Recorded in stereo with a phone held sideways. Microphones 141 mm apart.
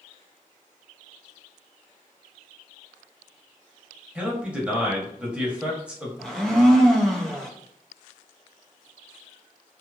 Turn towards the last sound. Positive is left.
turn(degrees=5)  # may be behind; listen again after turning